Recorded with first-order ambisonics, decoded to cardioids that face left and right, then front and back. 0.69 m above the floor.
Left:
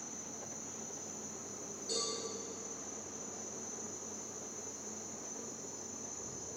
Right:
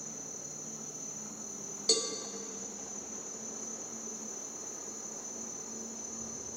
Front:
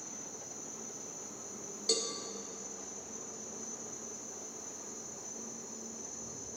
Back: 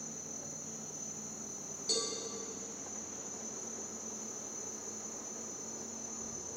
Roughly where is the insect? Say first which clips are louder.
Right 2 dB, back 1 dB; behind right.